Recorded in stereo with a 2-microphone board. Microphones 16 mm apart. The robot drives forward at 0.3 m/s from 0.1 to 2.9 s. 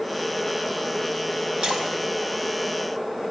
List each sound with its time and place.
1.6 s a splash: 80° right, 5.5 m